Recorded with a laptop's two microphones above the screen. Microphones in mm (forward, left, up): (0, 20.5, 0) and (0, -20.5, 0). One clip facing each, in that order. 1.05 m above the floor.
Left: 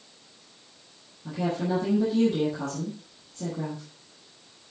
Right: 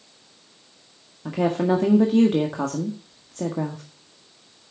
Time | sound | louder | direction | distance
1.2 | a woman speaking | right 7 dB | 70° right (ahead or behind) | 1.5 m